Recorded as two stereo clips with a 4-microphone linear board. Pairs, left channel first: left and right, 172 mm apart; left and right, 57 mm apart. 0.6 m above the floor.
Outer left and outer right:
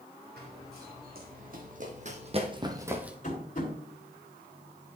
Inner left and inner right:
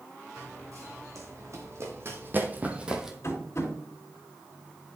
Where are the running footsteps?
75° right (ahead or behind), 2.5 m; by 3.1 s 5° right (ahead or behind), 1.2 m.